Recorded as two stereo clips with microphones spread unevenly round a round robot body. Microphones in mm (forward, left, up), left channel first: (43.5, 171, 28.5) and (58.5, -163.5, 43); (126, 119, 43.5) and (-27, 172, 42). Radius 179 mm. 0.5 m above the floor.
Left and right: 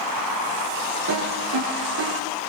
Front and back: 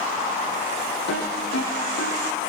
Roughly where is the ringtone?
Ahead right.